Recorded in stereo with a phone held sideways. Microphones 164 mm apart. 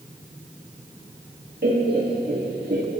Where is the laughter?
75° right (ahead or behind), 2 m.